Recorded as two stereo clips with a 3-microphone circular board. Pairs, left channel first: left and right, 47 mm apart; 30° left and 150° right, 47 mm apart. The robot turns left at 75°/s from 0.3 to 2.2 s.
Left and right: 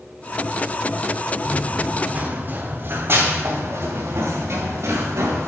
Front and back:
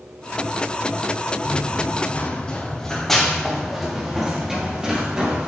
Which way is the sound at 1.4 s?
45° left.